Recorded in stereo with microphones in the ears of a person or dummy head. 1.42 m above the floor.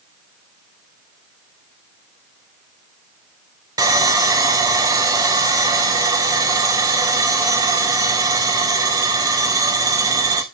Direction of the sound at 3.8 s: 15° right (ahead or behind).